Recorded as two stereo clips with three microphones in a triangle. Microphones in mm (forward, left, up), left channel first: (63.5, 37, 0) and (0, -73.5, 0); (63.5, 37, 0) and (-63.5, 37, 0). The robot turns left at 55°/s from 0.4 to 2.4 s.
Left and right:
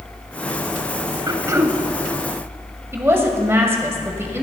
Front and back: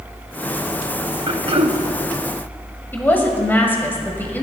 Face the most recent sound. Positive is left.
turn(degrees=-65)